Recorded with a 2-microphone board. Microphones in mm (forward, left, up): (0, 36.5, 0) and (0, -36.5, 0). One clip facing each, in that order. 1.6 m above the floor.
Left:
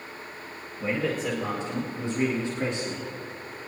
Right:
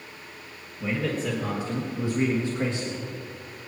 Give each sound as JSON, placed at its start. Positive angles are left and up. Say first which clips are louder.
{"t": 0.8, "sound": "a man speaking", "louder": "even", "side_deg": 5, "distance_m": 2.0}